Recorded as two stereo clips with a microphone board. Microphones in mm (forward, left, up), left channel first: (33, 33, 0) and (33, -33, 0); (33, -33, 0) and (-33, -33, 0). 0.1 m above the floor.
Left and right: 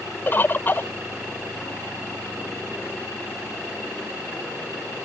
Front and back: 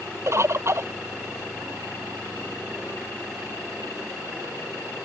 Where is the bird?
145° left.